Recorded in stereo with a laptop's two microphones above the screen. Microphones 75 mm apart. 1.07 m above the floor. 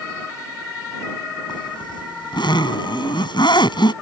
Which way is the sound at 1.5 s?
85° left.